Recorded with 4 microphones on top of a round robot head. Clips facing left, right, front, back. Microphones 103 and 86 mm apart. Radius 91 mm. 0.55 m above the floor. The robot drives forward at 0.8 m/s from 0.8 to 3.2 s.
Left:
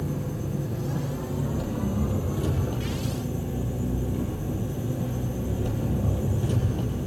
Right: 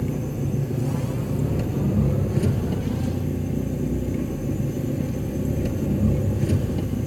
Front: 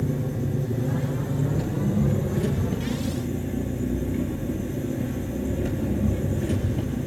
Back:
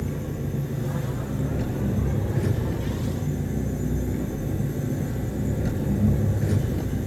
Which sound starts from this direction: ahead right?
An engine running, at 0.0 s.